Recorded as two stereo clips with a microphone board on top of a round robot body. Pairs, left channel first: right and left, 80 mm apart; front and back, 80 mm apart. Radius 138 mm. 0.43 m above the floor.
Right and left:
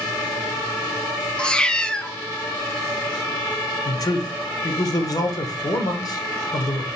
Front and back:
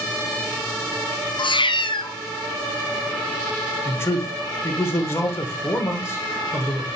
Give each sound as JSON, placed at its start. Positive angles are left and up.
{"t": 1.4, "sound": "a cat meowing", "azimuth_deg": -10, "distance_m": 0.6}
{"t": 3.9, "sound": "a man speaking", "azimuth_deg": -55, "distance_m": 1.5}